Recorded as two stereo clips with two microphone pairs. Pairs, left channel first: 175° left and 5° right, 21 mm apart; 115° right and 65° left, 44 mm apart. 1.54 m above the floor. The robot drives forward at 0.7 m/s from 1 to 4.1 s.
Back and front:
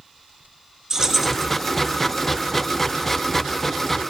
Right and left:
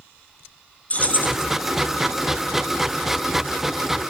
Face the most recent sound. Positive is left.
turn(degrees=-165)